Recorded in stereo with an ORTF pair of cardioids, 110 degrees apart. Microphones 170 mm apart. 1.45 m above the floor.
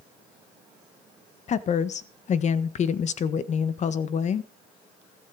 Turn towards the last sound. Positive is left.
turn(degrees=45)